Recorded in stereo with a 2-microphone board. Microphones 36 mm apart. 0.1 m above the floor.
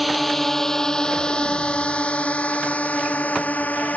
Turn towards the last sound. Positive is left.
turn(degrees=50)  # may be behind; listen again after turning